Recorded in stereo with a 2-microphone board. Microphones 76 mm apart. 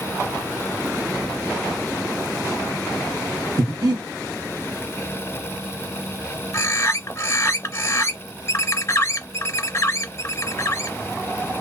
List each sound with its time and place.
3.6 s breathing: 55° right (ahead or behind), 1.2 m
6.5 s a bird: 35° left (ahead or behind), 0.6 m